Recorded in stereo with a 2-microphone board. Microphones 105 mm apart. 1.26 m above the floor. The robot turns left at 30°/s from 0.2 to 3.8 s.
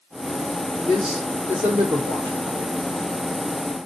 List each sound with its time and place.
0.8 s a man speaking: 5° left (ahead or behind), 3 m; by 2.7 s 50° right (ahead or behind), 3 m